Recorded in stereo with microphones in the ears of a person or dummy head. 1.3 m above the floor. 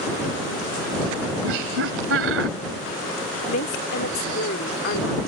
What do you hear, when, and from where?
1.4 s laughter: 80° right
3.5 s a woman speaking: 50° left (ahead or behind)